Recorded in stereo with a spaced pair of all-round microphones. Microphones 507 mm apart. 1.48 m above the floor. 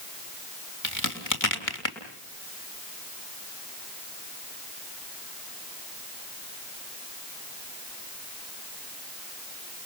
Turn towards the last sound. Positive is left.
turn(degrees=35)  # may be behind; listen again after turning